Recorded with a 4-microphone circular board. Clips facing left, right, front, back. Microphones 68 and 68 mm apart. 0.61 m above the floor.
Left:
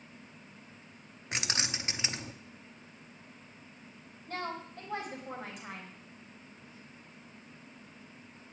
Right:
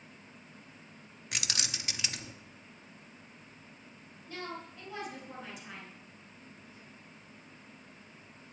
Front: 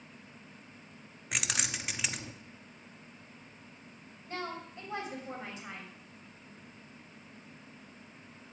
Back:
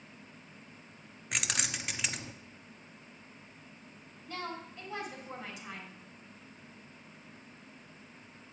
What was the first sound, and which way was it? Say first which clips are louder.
Keys jangling: left 3 dB, even; 90° left.